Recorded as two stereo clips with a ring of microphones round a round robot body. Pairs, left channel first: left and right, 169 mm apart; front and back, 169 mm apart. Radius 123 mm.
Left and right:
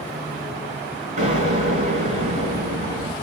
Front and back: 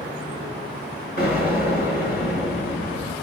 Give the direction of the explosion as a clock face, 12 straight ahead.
2 o'clock.